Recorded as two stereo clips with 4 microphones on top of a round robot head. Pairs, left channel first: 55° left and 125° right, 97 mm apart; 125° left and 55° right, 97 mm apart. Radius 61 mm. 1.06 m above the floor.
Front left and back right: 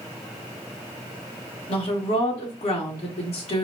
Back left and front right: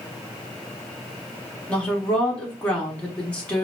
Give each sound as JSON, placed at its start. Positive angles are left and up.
{"t": 1.7, "sound": "a woman speaking", "azimuth_deg": 50, "distance_m": 1.9}